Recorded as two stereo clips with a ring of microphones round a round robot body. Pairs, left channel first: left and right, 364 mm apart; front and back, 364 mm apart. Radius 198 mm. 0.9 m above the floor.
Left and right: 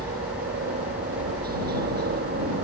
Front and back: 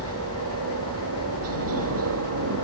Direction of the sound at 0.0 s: 145° right.